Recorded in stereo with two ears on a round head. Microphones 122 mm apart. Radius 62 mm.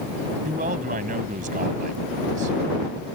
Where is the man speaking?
60° right (ahead or behind).